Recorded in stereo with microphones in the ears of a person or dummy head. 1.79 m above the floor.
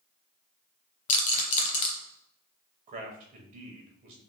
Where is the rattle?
40° left (ahead or behind), 0.8 m.